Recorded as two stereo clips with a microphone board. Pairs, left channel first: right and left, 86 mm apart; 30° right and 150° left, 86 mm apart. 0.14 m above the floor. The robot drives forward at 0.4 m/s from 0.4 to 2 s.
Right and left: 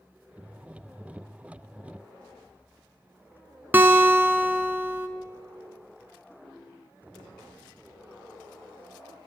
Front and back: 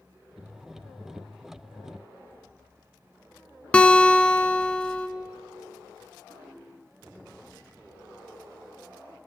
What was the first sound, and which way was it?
A guitar, 40° left.